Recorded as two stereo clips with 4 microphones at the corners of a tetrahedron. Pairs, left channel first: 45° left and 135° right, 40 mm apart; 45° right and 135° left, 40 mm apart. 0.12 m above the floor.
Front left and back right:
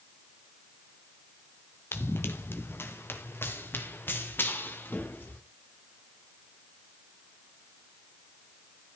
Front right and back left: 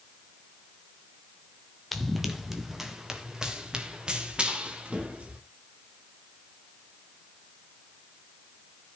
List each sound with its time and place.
1.9 s running footsteps: 45° left, 2 m; by 5.4 s 75° left, 4 m